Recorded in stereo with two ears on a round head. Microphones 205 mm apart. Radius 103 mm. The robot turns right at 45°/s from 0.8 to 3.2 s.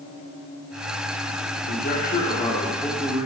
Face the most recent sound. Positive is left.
turn(degrees=-165)